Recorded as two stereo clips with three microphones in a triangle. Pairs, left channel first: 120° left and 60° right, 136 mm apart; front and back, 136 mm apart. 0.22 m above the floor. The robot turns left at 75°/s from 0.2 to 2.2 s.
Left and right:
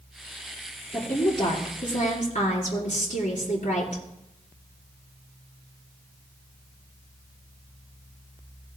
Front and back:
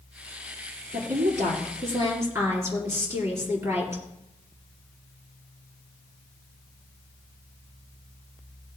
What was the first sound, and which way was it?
A woman speaking, 150° right.